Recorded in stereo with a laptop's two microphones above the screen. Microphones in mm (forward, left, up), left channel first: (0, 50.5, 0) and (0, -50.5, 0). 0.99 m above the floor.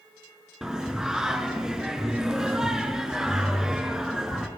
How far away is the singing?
About 3 m.